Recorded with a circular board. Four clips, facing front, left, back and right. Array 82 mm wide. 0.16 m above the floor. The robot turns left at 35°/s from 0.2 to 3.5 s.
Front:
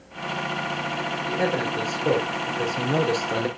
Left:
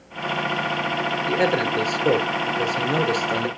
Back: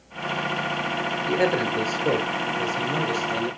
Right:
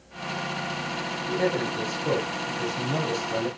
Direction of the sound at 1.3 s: 120° left.